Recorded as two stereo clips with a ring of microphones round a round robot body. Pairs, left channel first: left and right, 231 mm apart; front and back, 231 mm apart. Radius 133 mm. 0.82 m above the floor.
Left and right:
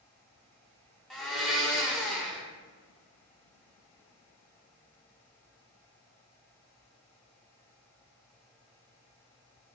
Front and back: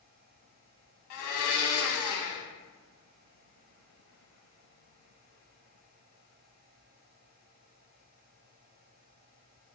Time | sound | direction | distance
1.1 | a blender | straight ahead | 0.8 m